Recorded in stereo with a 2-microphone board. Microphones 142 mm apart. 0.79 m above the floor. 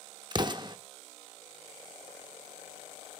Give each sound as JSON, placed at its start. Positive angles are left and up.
{"t": 0.3, "sound": "an explosion", "side_deg": -30, "distance_m": 0.5}